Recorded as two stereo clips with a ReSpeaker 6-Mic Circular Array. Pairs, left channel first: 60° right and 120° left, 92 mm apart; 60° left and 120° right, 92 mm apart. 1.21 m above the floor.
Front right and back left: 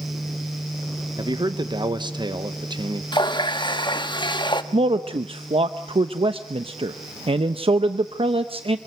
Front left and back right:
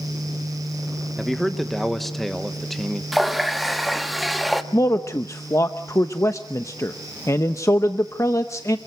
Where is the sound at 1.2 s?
150° left, 1.5 m.